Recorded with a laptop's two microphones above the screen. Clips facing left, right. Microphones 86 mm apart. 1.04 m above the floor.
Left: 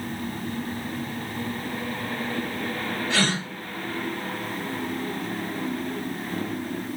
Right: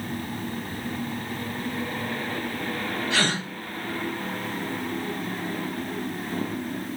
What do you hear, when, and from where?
3.1 s a gasp: 85° left, 1.8 m